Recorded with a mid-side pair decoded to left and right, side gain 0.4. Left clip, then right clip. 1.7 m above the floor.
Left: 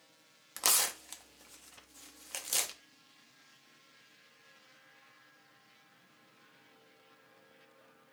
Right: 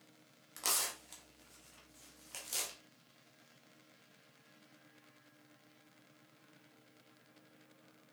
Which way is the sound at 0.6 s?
60° left.